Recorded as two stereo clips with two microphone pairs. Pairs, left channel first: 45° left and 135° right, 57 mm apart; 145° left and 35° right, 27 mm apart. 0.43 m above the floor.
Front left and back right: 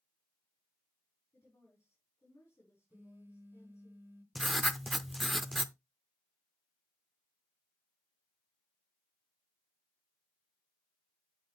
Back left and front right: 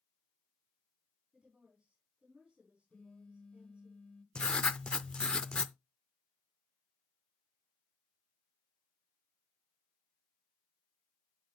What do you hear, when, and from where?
1.3 s a woman speaking: 10° left, 4.5 m
2.9 s a phone buzzing: straight behind, 1.4 m
4.3 s writing: 130° left, 0.5 m